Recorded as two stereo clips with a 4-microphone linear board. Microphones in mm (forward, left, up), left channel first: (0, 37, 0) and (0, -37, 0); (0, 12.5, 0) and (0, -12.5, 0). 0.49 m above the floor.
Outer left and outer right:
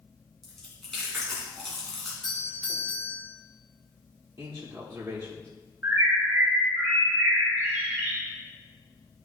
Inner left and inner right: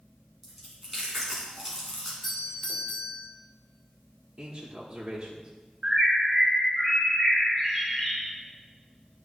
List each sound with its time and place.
0.4 s chewing: 5° left (ahead or behind), 3 m
2.2 s a doorbell: 5° left (ahead or behind), 1.8 m
4.4 s a man speaking: 30° right (ahead or behind), 1.2 m
5.8 s a bird: 25° right (ahead or behind), 3 m